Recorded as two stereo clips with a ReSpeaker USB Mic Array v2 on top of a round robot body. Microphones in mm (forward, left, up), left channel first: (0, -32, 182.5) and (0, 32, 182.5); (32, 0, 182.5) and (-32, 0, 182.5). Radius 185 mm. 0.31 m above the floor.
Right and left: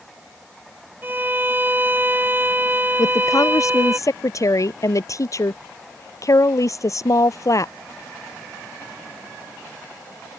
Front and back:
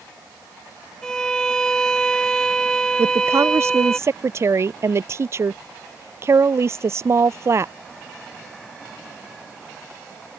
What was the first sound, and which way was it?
A violin, 75° left.